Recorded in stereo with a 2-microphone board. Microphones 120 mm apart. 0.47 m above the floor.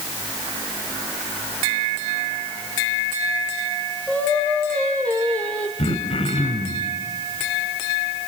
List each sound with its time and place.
4.1 s singing: 10° left (ahead or behind), 4 m
5.8 s throat clearing: 55° left (ahead or behind), 2.5 m